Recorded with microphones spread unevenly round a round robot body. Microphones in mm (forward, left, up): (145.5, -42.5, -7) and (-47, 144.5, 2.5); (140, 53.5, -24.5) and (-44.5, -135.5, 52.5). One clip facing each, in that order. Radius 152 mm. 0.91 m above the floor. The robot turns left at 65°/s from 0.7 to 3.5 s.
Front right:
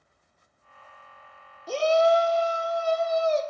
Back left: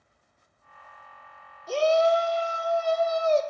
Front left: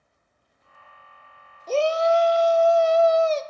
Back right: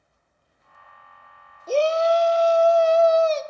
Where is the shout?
50° right, 1.0 m; by 3.4 s 160° right, 1.0 m.